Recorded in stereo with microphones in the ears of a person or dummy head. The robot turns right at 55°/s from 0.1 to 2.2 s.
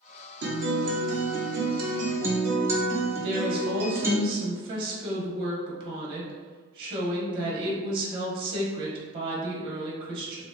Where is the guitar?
115° right, 0.8 m; by 4.2 s 20° right, 0.8 m.